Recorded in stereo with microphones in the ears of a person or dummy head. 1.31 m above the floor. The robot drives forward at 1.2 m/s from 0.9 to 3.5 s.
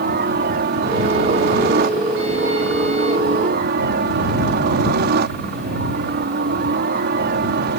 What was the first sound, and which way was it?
A helicopter, 50° right (ahead or behind).